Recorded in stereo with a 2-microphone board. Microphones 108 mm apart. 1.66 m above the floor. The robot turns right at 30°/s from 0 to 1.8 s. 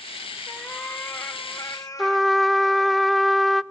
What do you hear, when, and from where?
0.5 s a cat meowing: 5° left, 1.4 m; by 3.0 s 45° left, 1.4 m
2.0 s a trumpet: centre (ahead or behind), 0.6 m